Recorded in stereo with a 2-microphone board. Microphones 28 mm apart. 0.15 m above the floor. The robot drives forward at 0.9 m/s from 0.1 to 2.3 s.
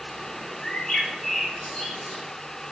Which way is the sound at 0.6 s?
20° left (ahead or behind).